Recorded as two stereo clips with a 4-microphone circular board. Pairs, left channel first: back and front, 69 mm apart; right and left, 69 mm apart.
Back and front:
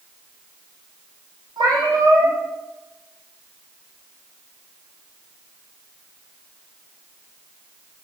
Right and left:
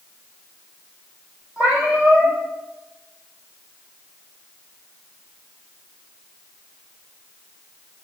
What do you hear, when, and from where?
1.6 s a cat meowing: 20° left, 1.4 m